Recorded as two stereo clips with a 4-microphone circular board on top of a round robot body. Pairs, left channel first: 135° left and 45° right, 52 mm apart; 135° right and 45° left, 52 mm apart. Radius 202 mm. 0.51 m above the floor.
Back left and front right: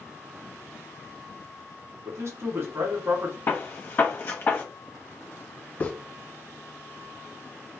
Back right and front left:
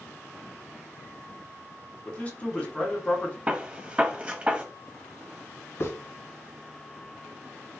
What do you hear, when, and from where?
2.0 s a man speaking: 70° right, 1.5 m
3.5 s a gunshot: 100° left, 0.8 m
5.8 s a hiss: 170° right, 0.9 m